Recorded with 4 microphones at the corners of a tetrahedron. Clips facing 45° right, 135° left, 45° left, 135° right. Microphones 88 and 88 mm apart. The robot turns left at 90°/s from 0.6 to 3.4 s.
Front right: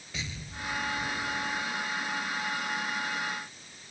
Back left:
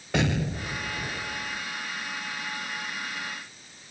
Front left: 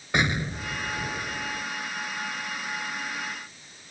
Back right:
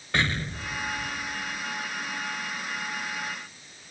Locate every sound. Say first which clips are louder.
0.1 s an explosion: back left 14 dB, front left 2 dB; 120° left; by 1.6 s 25° left